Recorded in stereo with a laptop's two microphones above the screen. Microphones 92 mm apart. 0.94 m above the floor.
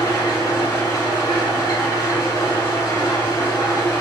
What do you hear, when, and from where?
0.0 s an engine running: 60° left (ahead or behind), 1.6 m